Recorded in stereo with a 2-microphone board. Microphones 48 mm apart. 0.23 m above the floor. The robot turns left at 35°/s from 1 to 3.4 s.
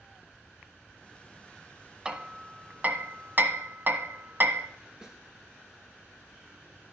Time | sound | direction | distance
2.0 | hammering | 20° right (ahead or behind) | 1.2 m
5.0 | a snare drum | 15° right (ahead or behind) | 1.4 m